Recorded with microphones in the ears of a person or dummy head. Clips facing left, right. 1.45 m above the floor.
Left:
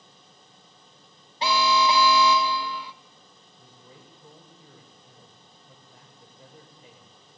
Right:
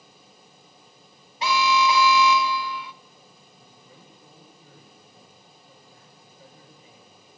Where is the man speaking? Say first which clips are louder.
Left 2 dB; 65° left (ahead or behind), 7.5 m.